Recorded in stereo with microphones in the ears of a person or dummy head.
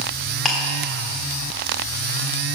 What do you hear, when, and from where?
0.5 s ticking: 5° left (ahead or behind), 1.5 m